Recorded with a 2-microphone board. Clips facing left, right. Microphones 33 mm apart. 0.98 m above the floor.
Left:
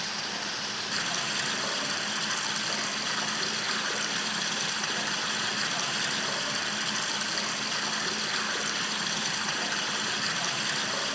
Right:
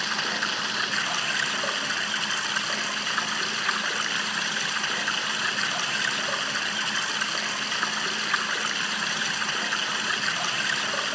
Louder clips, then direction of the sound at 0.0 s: Right 7 dB; 70° right (ahead or behind).